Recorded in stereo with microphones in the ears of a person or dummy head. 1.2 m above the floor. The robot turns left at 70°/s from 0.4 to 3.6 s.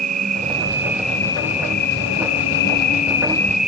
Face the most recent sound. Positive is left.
turn(degrees=0)